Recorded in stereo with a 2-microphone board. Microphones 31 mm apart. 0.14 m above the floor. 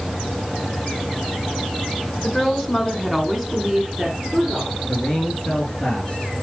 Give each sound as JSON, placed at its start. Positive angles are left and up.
{"t": 2.2, "sound": "a woman speaking", "side_deg": 15, "distance_m": 1.7}
{"t": 4.9, "sound": "a man speaking", "side_deg": 30, "distance_m": 2.0}